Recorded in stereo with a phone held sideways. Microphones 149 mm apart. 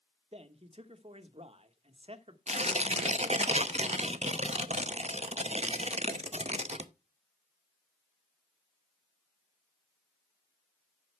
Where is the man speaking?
45° right (ahead or behind), 1.1 m.